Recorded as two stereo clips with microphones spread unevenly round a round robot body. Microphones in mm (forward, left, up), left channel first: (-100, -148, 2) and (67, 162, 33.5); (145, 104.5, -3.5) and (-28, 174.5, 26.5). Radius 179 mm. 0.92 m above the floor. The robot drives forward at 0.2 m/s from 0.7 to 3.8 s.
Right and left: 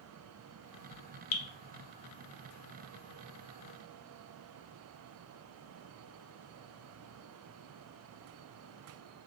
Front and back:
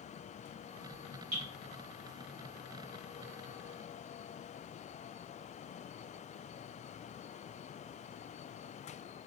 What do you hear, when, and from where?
1.3 s dripping: 150° right, 0.5 m; by 1.4 s 155° right, 0.5 m